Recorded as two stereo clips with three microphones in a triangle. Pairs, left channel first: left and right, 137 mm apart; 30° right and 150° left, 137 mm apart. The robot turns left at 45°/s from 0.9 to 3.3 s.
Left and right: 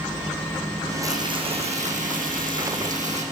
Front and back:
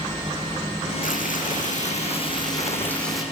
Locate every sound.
1.0 s frying: 25° right, 5.5 m; by 3.2 s 125° right, 5.5 m